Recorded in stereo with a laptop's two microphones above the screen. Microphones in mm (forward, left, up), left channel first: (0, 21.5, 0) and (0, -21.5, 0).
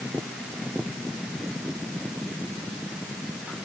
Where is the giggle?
I don't hear a giggle.